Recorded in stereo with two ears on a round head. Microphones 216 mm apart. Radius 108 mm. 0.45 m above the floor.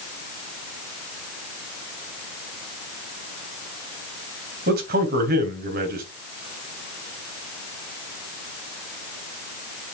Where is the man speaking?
40° right (ahead or behind), 3 m.